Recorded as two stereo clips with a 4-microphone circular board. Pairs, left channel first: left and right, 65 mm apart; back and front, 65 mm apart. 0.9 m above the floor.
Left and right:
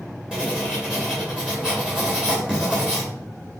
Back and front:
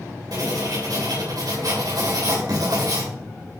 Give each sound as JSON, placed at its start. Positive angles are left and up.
{"t": 0.3, "sound": "writing", "azimuth_deg": -10, "distance_m": 3.0}